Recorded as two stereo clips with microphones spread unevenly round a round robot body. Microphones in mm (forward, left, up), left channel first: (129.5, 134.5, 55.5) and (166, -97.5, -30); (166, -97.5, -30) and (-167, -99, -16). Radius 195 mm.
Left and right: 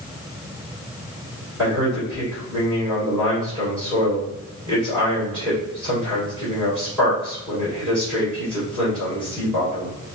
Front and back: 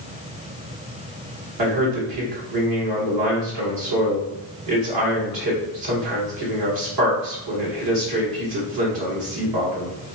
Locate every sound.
1.6 s a man speaking: 170° right, 2 m